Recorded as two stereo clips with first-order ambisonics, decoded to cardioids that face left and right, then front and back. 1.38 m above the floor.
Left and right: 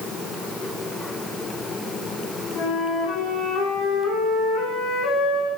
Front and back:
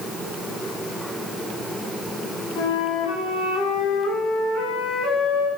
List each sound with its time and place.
2.5 s a flute: 35° left, 9 m